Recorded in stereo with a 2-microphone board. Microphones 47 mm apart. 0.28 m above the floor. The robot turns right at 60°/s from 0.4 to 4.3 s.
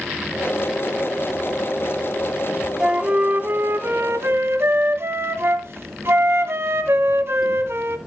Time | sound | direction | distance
2.8 | a flute | 170° right | 1.4 m